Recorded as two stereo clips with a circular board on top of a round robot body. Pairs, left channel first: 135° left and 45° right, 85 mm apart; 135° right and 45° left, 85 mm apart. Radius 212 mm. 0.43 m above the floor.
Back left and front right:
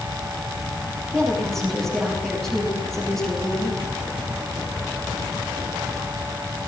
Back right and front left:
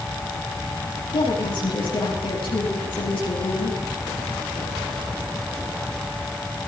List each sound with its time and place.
1.1 s a woman speaking: 140° right, 8.5 m